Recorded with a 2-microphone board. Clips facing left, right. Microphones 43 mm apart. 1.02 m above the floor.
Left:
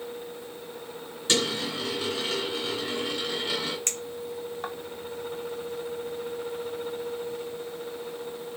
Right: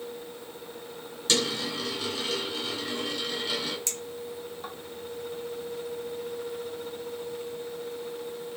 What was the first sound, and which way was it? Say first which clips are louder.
A dropped coin: left 1 dB; 25° left (ahead or behind).